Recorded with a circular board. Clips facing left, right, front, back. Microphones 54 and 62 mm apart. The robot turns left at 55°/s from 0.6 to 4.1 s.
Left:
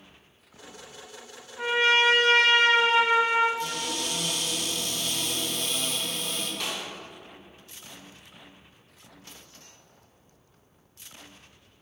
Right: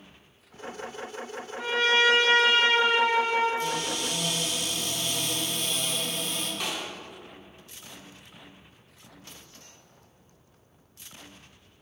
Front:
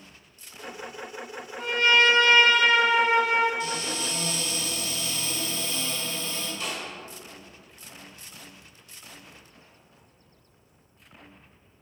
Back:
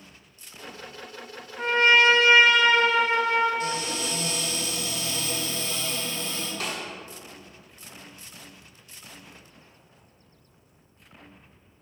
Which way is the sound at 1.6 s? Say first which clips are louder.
Left 1 dB, back 2 dB; 145° left.